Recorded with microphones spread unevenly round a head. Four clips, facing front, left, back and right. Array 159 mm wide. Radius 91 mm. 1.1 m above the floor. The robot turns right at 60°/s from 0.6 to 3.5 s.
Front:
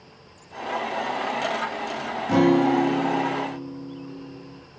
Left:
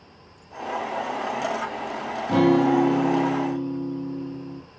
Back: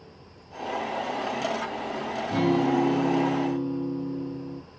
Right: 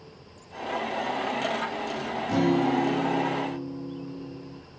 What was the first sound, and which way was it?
A guitar, 30° left.